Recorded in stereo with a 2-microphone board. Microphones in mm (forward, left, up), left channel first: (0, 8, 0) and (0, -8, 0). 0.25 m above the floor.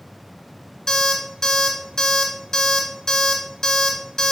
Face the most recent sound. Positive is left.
turn(degrees=30)  # may be behind; listen again after turning